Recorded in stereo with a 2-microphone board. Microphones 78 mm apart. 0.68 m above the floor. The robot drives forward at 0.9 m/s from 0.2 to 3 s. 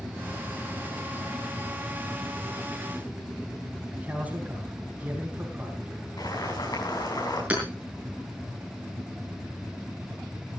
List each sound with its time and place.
3.9 s a man speaking: 20° right (ahead or behind), 4.5 m
6.2 s boiling: 60° left (ahead or behind), 6.5 m
7.5 s hammering: 20° right (ahead or behind), 6 m